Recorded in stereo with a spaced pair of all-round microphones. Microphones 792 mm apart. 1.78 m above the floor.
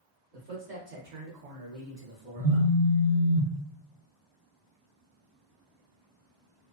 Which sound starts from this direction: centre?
A phone buzzing, at 2.4 s.